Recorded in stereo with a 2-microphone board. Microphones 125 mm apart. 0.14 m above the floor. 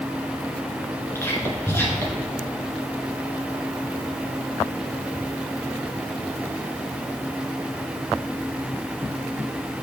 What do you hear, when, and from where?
1.1 s whispering: 20° left (ahead or behind), 1.6 m